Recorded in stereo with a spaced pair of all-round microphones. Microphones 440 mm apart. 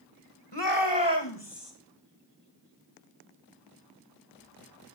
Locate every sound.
0.5 s a shout: 70° left (ahead or behind), 1.9 m